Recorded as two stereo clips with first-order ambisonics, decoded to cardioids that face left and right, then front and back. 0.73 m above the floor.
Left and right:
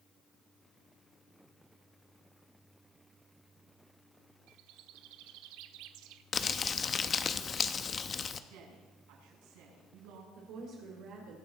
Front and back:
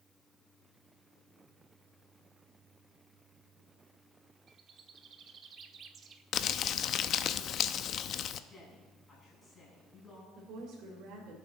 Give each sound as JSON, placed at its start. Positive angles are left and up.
{"t": 4.5, "sound": "a bird", "azimuth_deg": -115, "distance_m": 1.0}
{"t": 6.3, "sound": "crumpling", "azimuth_deg": 30, "distance_m": 0.6}
{"t": 8.5, "sound": "a woman speaking", "azimuth_deg": -80, "distance_m": 7.0}
{"t": 10.3, "sound": "a woman speaking", "azimuth_deg": -130, "distance_m": 3.0}